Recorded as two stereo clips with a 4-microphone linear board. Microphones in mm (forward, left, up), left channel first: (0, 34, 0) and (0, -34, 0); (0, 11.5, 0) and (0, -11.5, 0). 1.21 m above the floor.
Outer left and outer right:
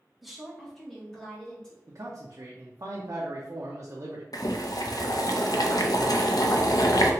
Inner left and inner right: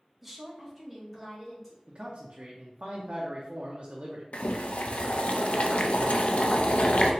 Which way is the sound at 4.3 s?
65° left (ahead or behind).